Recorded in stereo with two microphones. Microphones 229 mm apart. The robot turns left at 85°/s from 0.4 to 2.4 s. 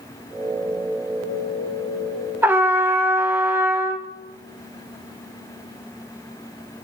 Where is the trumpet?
10° right (ahead or behind), 0.6 m.